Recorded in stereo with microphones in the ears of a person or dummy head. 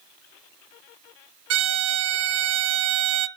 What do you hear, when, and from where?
1.5 s a violin: 65° right (ahead or behind), 0.6 m